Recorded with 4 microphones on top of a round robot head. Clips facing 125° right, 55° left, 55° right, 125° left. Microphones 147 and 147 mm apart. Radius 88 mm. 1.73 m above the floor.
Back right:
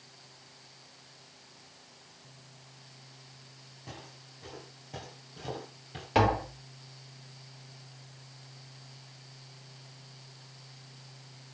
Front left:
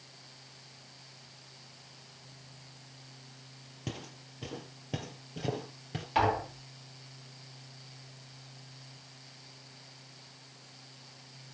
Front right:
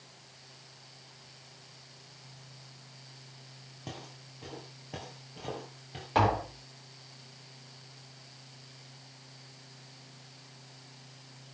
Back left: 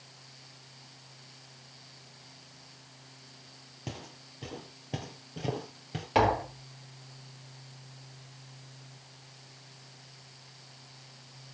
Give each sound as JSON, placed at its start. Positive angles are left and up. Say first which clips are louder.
{"t": 3.9, "sound": "footsteps", "louder": "front left 6 dB, back left 2 dB", "azimuth_deg": 50, "distance_m": 2.5}
{"t": 6.2, "sound": "tapping", "louder": "back right 2 dB, back left 2 dB", "azimuth_deg": -165, "distance_m": 4.0}